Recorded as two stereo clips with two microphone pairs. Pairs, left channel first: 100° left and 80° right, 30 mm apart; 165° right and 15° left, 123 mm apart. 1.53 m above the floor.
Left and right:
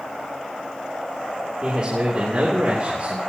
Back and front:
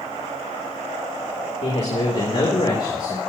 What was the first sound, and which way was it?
A man speaking, 140° right.